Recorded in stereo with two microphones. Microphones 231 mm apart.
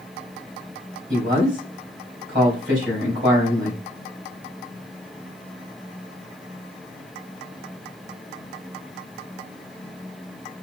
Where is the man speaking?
50° right (ahead or behind), 3 m.